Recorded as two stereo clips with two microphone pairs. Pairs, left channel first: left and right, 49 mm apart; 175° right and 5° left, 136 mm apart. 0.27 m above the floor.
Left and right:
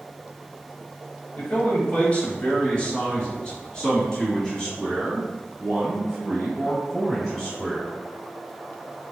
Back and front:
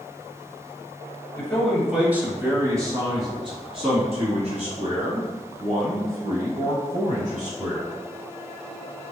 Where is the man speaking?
110° left, 1.2 m; by 7.9 s 5° left, 3.5 m.